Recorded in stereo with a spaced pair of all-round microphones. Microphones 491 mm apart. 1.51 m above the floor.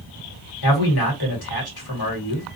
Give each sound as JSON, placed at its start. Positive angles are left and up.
{"t": 0.6, "sound": "a man speaking", "side_deg": 45, "distance_m": 1.5}